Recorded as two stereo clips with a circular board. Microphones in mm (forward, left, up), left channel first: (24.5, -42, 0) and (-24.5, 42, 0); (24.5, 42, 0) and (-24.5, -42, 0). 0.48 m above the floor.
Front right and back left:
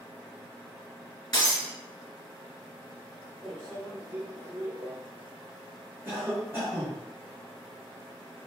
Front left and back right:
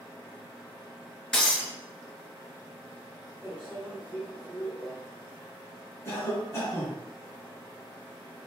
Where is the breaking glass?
20° right, 1.5 m.